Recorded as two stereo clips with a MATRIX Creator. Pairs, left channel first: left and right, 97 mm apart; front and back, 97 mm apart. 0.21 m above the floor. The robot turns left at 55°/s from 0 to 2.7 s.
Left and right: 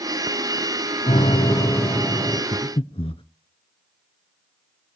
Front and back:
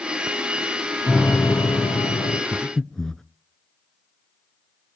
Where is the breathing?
95° left, 0.8 m; by 3.2 s 85° left, 0.8 m.